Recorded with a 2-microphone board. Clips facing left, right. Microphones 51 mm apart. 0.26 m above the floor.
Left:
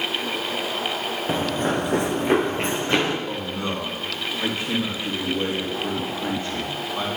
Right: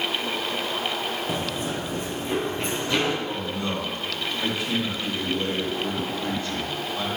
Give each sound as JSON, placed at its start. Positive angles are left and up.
{"t": 1.3, "sound": "running footsteps", "side_deg": 30, "distance_m": 1.1}
{"t": 3.3, "sound": "a man speaking", "side_deg": 25, "distance_m": 3.5}